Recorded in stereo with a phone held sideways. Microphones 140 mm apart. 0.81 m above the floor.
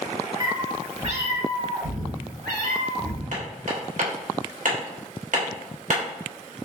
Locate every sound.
0.4 s a cat meowing: 30° right (ahead or behind), 1.1 m; by 3.2 s 65° right (ahead or behind), 1.4 m
3.3 s hammering: 70° right (ahead or behind), 1.3 m